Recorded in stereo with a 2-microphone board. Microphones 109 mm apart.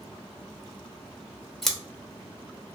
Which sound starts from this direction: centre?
Scissors, at 1.6 s.